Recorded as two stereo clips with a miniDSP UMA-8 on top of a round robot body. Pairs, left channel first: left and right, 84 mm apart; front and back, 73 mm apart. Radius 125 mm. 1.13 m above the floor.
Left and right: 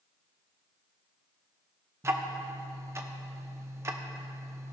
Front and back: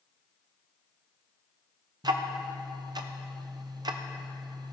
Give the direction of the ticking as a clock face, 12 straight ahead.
5 o'clock.